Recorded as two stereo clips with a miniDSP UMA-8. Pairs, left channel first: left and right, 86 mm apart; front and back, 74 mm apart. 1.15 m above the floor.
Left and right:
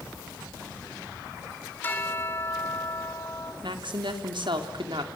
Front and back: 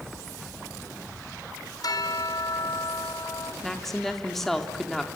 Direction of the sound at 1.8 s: 25° left.